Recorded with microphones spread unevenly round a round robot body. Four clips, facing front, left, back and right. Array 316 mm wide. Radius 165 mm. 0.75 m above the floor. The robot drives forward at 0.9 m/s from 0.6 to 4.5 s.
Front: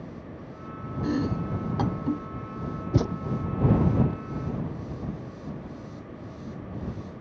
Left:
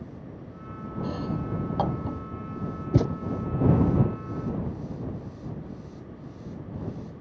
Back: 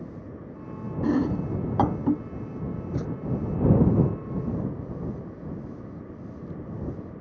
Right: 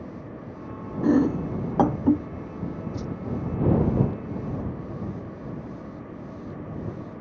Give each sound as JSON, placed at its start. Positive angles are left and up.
{"t": 1.0, "sound": "chopping", "azimuth_deg": -100}
{"t": 2.9, "sound": "a thud", "azimuth_deg": 50}